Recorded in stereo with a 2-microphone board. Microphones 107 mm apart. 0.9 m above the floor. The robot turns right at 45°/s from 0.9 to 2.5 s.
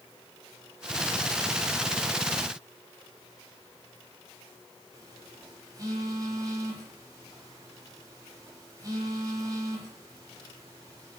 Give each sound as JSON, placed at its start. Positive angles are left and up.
{"t": 4.9, "sound": "a phone buzzing", "side_deg": -35, "distance_m": 7.0}